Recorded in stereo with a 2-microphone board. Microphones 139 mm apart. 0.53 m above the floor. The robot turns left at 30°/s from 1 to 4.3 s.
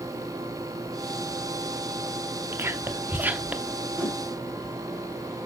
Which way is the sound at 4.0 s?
10° left (ahead or behind).